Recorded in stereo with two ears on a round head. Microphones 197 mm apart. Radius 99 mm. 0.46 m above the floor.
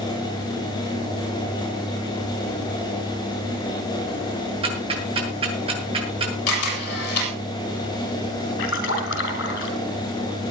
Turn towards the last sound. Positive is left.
turn(degrees=55)  # may be behind; listen again after turning